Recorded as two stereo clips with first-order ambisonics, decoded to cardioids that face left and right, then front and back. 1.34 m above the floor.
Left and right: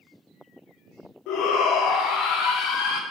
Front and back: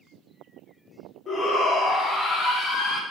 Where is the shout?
65° left, 0.6 m.